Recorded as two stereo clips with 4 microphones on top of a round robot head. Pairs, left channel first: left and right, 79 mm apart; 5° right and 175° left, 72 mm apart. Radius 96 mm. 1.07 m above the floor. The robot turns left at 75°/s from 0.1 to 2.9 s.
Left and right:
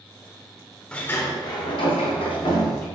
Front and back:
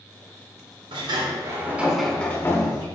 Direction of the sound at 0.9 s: 170° left.